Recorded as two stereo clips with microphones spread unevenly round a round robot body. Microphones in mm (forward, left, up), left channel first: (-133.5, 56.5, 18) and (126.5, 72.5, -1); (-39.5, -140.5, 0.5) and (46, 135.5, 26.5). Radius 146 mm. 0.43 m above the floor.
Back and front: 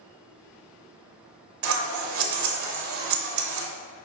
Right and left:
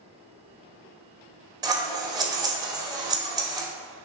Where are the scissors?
5° right, 0.7 m.